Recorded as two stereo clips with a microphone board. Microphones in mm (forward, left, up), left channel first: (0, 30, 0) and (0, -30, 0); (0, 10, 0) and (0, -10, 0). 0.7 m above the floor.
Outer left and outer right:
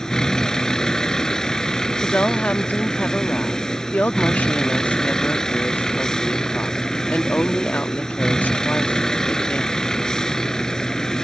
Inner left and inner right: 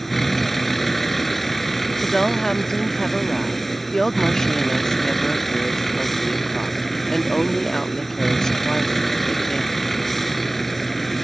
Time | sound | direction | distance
0.0 | a vehicle | 10° left (ahead or behind) | ?
2.0 | a woman speaking | 25° left (ahead or behind) | ?